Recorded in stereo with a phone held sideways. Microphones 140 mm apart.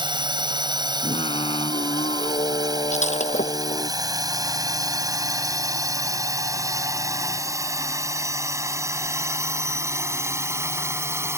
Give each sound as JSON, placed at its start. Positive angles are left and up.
{"t": 0.0, "sound": "a drone", "side_deg": -35}
{"t": 1.0, "sound": "singing", "side_deg": 40}
{"t": 2.9, "sound": "breaking glass", "side_deg": 55}